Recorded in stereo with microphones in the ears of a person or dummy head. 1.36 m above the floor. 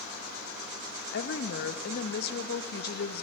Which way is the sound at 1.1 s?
55° left (ahead or behind).